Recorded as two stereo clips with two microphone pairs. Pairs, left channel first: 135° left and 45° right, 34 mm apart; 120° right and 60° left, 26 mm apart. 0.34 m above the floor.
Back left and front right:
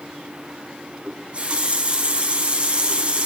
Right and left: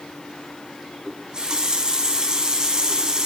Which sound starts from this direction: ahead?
A running tap, at 1.1 s.